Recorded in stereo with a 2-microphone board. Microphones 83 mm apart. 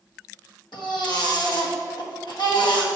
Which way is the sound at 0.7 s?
70° left (ahead or behind).